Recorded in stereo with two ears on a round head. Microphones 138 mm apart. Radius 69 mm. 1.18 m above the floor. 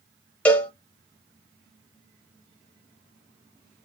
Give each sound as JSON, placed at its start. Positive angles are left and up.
{"t": 0.5, "sound": "a cowbell", "side_deg": 10, "distance_m": 0.5}